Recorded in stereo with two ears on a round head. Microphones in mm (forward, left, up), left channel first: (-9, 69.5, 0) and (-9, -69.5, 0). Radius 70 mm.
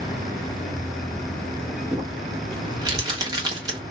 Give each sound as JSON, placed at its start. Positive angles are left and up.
{"t": 1.9, "sound": "crumpling", "side_deg": -30, "distance_m": 1.1}